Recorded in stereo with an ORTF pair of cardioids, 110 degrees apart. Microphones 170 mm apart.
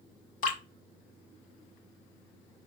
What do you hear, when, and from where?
0.4 s dripping: 50° left, 2.0 m